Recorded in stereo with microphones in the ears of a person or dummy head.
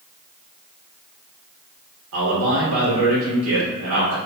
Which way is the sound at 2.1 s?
65° right (ahead or behind).